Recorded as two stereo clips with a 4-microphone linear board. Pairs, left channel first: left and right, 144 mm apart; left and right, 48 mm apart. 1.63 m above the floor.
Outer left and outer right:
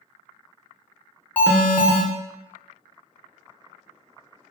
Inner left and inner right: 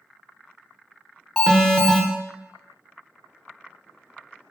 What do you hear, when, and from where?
1.4 s an alarm: 10° left (ahead or behind), 0.6 m